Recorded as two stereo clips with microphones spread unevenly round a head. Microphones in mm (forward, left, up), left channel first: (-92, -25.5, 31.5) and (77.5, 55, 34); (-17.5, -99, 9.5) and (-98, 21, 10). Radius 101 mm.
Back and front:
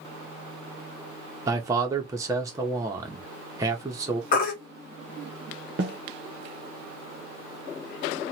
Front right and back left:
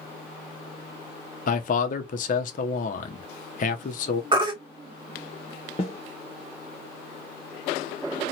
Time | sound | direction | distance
1.5 | a man speaking | 45° right | 0.6 m
4.3 | a baby crying | 170° left | 1.1 m
5.8 | a snare drum | 5° right | 0.6 m